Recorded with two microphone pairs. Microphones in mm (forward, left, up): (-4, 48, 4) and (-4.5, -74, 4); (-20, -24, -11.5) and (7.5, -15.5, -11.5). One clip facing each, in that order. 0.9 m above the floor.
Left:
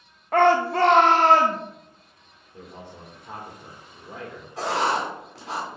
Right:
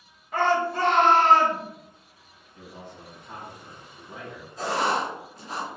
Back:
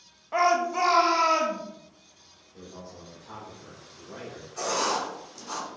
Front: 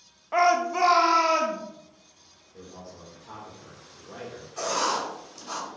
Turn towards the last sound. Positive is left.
turn(degrees=105)